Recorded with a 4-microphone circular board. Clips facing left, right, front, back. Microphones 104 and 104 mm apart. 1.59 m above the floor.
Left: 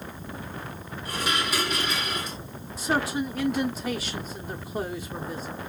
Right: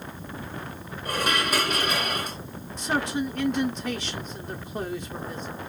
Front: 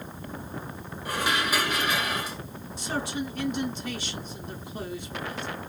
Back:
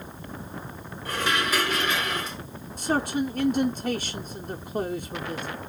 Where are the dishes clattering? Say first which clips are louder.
Right 3 dB, back 1 dB; 75° right, 1.0 m.